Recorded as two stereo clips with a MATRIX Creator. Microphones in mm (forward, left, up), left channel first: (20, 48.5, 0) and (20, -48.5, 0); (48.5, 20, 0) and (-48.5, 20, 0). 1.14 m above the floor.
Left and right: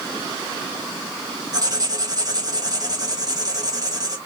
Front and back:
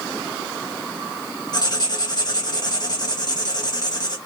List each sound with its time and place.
1.5 s writing: 45° right, 1.4 m